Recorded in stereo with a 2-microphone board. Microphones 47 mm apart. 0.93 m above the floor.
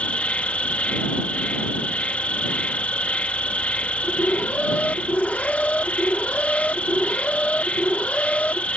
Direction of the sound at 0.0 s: 30° left (ahead or behind).